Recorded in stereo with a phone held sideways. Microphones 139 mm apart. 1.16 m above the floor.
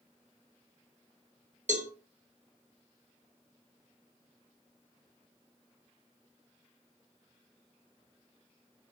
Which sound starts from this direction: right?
A cowbell, at 1.7 s.